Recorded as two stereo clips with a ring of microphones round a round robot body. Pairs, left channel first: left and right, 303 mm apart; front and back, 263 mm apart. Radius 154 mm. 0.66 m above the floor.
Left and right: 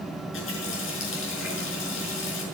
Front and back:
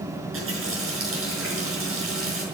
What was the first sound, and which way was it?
A running tap, 140° left.